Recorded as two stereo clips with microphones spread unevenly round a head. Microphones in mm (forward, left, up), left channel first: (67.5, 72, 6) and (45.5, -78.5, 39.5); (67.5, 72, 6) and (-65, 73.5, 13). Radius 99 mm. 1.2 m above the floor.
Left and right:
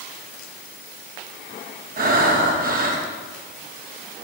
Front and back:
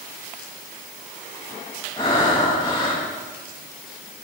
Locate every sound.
2.0 s breathing: 70° right, 1.7 m